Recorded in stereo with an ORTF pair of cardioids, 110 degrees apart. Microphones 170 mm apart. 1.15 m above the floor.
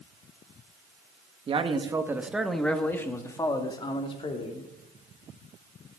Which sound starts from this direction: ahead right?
A man speaking, at 1.5 s.